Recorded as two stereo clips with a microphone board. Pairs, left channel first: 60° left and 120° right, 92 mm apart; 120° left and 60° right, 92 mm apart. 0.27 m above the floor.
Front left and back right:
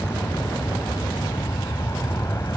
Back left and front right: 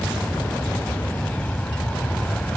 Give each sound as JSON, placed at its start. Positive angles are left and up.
{"t": 0.0, "sound": "an aircraft", "azimuth_deg": 55}